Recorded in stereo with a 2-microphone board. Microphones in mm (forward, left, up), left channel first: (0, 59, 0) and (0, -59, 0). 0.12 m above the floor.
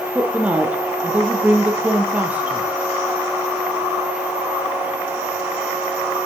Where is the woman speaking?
10° right (ahead or behind), 3 m.